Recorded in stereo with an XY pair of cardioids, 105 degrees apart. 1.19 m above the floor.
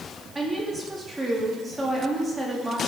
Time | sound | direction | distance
0.3 | a woman speaking | 15° right | 2 m